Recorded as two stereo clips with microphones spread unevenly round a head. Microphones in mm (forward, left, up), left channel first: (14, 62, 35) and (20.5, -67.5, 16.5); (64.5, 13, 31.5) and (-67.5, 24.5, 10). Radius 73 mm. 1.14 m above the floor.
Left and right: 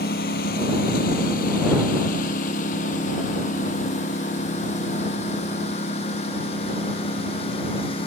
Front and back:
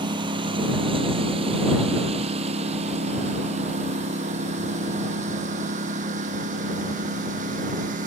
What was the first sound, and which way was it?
A lawn mower, 120° left.